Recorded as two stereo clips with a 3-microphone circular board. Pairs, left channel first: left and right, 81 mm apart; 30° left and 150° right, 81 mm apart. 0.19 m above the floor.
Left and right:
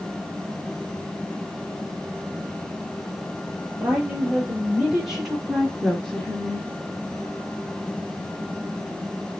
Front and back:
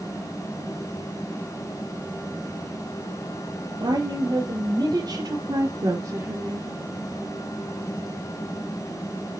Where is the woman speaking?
165° right, 4 m; by 6.8 s 155° left, 2.5 m.